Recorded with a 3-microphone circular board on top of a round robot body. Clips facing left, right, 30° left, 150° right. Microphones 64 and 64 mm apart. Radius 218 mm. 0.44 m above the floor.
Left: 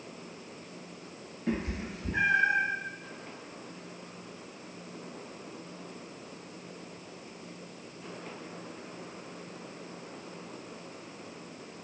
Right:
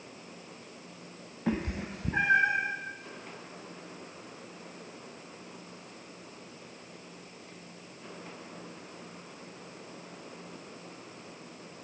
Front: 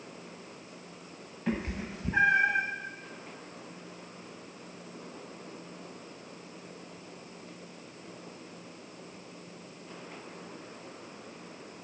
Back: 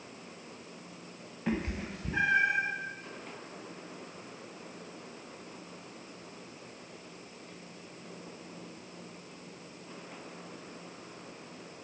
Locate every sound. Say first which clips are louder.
1.5 s a cat meowing: right 1 dB, even; 65° right, 0.8 m; by 2.6 s 15° right, 0.8 m